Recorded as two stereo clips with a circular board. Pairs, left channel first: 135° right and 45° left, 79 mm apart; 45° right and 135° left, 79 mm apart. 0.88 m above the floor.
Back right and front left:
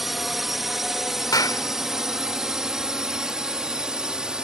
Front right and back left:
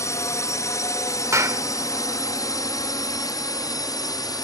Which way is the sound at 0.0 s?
40° right.